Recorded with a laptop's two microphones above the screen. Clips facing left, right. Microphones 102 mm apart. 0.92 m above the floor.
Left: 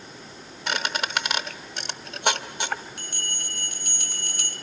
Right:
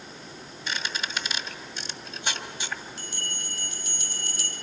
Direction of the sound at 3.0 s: 70° left (ahead or behind).